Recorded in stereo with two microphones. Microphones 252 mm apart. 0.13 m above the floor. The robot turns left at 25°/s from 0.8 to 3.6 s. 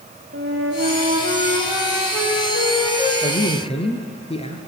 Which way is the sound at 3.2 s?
30° left (ahead or behind).